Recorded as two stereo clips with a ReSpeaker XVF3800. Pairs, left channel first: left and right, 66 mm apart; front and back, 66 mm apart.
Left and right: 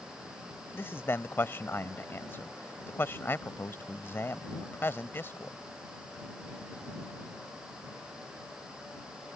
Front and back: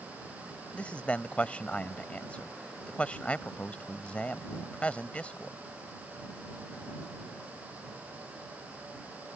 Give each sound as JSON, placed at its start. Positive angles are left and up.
{"t": 0.7, "sound": "a man speaking", "azimuth_deg": 60}